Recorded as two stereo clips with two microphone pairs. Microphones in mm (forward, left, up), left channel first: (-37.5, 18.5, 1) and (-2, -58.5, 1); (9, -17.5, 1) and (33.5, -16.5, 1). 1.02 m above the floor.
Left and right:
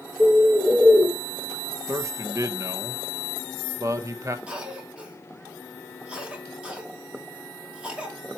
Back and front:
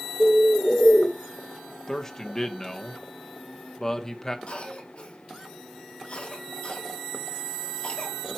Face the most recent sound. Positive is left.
turn(degrees=-140)